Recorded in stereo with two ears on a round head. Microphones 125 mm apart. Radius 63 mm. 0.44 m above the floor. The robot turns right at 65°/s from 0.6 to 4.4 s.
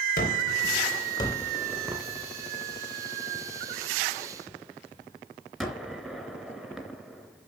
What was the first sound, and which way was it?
A gunshot, 65° left (ahead or behind).